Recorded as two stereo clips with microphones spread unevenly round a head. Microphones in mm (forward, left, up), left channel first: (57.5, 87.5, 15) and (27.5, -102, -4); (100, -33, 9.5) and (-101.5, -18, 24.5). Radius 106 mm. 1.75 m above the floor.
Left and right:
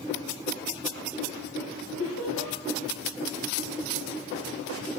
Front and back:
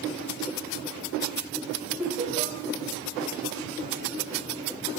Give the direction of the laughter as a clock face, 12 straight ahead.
9 o'clock.